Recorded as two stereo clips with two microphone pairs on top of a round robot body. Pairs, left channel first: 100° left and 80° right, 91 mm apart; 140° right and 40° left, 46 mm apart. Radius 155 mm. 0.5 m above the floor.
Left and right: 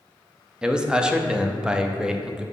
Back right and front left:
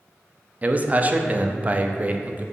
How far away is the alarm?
I don't hear an alarm.